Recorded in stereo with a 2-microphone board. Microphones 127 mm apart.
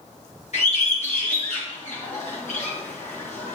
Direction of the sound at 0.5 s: 65° left (ahead or behind).